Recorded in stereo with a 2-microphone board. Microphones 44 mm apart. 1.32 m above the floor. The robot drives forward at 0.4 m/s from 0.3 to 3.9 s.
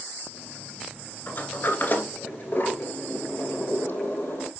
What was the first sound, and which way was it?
A sliding door, 50° left (ahead or behind).